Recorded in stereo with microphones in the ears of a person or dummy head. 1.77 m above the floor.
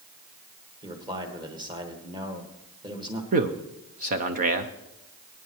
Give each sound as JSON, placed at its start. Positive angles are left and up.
{"t": 0.8, "sound": "a man speaking", "side_deg": -25, "distance_m": 1.6}
{"t": 3.3, "sound": "a man speaking", "side_deg": -35, "distance_m": 0.6}